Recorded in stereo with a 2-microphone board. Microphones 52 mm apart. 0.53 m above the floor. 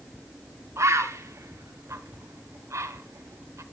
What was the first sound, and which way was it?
A bird, 65° right (ahead or behind).